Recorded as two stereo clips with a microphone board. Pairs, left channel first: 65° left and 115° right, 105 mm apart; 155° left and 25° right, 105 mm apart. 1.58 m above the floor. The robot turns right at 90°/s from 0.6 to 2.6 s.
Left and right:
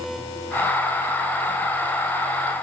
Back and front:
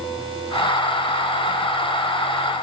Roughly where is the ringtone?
I don't hear a ringtone.